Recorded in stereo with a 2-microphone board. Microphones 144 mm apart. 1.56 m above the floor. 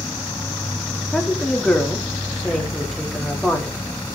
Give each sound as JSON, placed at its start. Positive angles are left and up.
{"t": 0.0, "sound": "an insect", "side_deg": 10, "distance_m": 1.0}
{"t": 1.1, "sound": "a woman speaking", "side_deg": 0, "distance_m": 4.5}